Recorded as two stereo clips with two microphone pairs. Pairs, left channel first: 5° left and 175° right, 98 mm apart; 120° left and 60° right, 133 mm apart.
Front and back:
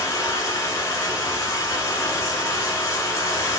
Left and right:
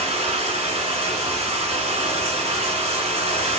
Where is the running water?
45° right, 1.0 m.